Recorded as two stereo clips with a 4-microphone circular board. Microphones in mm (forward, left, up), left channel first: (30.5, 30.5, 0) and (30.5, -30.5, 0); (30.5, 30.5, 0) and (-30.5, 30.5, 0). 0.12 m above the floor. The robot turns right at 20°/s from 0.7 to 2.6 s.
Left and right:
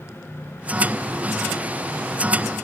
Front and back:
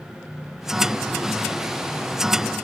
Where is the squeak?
I don't hear a squeak.